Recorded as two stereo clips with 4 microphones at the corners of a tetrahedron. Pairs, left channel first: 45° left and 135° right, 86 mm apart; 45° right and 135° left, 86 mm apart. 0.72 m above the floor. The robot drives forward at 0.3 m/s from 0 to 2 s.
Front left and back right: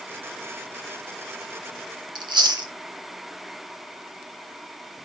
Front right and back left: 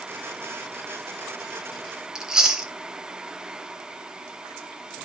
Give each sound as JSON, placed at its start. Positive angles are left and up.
{"t": 2.1, "sound": "chewing", "azimuth_deg": -145, "distance_m": 0.8}